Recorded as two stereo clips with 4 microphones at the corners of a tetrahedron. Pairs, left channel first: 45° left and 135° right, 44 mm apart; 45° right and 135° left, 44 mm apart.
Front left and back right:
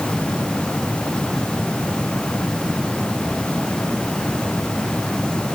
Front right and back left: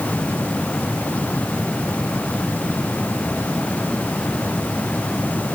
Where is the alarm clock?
No alarm clock in this recording.